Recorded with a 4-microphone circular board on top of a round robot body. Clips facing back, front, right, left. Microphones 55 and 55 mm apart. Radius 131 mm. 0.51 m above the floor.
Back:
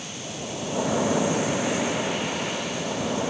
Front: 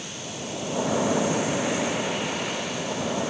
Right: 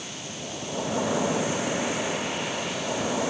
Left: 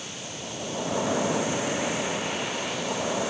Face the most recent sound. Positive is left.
No sound to turn to.